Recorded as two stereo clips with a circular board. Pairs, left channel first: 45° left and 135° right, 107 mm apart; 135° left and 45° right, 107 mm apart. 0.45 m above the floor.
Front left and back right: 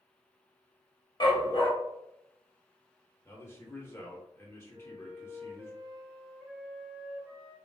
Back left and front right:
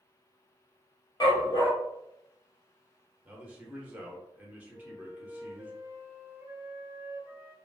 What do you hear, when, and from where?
1.2 s a dog barking: 90° left, 1.0 m
3.2 s a man speaking: 10° left, 0.8 m
4.7 s a flute: 85° right, 1.1 m